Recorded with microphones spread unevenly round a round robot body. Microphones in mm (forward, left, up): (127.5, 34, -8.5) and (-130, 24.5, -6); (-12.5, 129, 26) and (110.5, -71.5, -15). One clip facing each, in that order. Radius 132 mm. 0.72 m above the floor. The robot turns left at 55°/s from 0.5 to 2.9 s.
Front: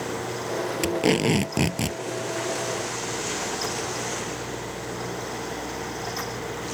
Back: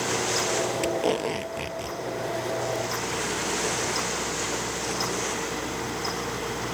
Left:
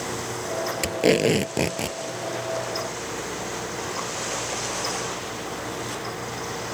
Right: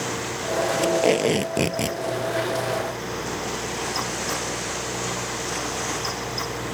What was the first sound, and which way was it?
Tape being pulled, 65° left.